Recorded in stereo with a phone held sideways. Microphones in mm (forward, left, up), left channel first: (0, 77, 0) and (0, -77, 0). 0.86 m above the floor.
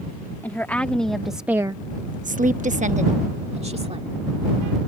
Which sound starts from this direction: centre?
A woman speaking, at 0.4 s.